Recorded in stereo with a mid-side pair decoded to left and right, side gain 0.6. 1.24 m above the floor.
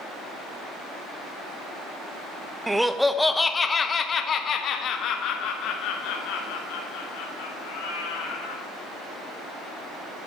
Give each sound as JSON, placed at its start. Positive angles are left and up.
{"t": 2.7, "sound": "laughter", "azimuth_deg": -10, "distance_m": 1.0}